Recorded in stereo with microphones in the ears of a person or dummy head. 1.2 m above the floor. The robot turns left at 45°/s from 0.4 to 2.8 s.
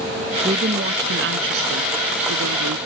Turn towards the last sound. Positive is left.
turn(degrees=-140)